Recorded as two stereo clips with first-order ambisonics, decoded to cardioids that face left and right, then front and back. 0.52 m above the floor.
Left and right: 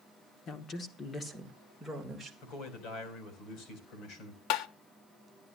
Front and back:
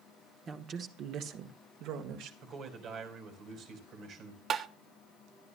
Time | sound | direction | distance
0.5 | a woman speaking | 125° left | 1.1 m
2.4 | a man speaking | 130° left | 3.5 m
4.5 | tapping | 120° left | 0.7 m